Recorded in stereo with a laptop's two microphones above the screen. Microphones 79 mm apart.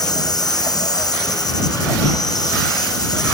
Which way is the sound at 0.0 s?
50° left (ahead or behind).